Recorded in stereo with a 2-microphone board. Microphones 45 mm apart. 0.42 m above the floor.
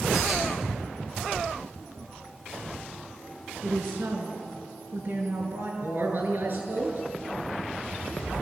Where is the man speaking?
55° right (ahead or behind), 7.5 m.